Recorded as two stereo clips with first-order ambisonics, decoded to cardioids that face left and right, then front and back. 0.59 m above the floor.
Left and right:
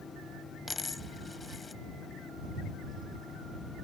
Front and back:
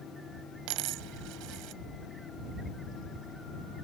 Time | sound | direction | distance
0.7 | a dropped coin | 165° left | ?